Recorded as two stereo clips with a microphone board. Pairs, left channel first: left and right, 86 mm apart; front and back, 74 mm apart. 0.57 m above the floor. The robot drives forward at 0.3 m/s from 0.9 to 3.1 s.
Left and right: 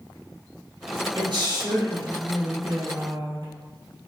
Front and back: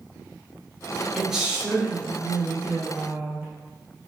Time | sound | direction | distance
1.1 | a woman speaking | 95° right | 1.9 m